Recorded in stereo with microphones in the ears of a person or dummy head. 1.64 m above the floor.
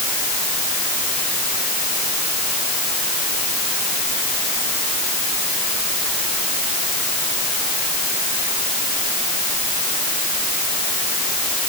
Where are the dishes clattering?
I don't hear dishes clattering.